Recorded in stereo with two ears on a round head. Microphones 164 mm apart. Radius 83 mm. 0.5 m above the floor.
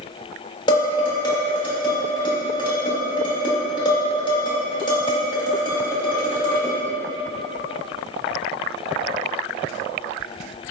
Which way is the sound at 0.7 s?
25° left (ahead or behind).